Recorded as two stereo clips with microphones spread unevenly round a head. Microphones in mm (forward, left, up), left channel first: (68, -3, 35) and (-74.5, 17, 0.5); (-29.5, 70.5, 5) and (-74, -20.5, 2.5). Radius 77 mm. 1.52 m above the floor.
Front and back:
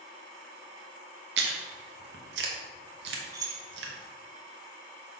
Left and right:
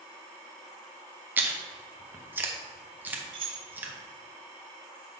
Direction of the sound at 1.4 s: 175° left.